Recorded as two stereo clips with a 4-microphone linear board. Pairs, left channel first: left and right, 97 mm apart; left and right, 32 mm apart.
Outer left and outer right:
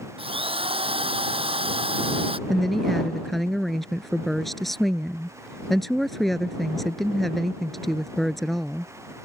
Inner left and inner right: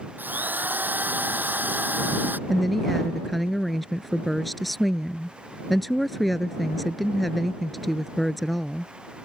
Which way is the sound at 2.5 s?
Centre (ahead or behind).